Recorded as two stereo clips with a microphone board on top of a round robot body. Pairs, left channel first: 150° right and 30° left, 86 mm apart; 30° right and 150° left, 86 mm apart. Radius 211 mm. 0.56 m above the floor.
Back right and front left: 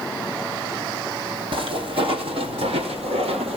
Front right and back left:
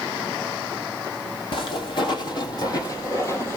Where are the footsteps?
Straight ahead, 2 m; by 3.6 s 35° left, 1.6 m.